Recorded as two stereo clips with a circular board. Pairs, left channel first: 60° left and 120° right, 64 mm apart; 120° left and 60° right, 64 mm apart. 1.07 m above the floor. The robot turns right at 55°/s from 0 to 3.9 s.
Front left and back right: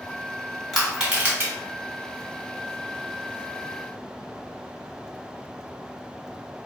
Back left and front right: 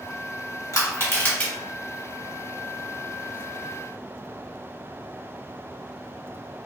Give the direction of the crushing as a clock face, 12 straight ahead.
7 o'clock.